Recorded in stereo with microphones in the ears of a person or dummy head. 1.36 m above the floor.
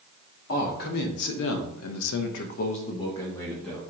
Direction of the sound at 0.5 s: 50° left (ahead or behind).